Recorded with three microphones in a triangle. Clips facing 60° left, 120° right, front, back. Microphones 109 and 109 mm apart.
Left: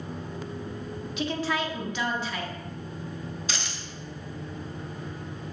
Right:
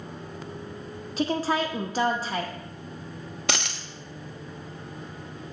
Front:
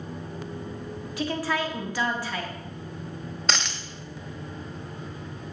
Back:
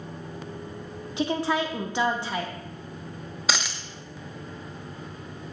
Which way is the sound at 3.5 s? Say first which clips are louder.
Right 5 dB, back 1 dB; 95° right.